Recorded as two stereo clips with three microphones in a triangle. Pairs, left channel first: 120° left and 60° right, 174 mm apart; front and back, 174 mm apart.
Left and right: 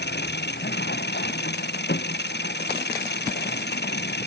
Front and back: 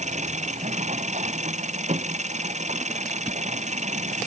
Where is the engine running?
130° left.